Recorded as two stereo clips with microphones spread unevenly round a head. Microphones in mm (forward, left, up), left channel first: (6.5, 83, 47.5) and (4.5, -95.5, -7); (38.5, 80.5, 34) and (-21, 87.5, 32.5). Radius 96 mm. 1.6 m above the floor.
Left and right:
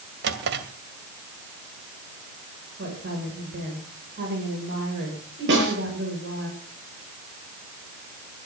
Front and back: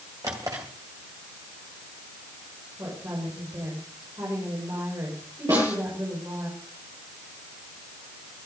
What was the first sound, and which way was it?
A drawer, 125° right.